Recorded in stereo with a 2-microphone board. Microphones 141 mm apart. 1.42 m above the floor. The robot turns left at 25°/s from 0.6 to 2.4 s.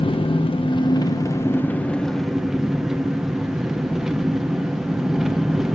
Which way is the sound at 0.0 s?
40° left.